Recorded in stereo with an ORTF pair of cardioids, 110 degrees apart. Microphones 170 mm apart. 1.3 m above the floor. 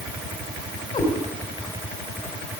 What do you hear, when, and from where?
0.9 s a cat meowing: 30° left, 3 m